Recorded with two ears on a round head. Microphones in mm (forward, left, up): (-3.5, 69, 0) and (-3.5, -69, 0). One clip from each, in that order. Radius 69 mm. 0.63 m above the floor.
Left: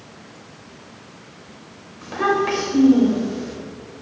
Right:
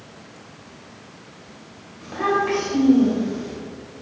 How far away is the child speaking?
About 2 m.